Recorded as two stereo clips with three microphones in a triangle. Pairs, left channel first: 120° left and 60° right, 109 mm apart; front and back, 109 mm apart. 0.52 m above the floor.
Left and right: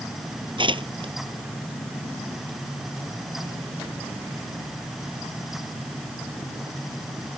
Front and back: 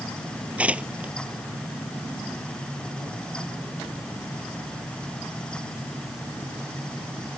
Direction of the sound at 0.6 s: 100° right.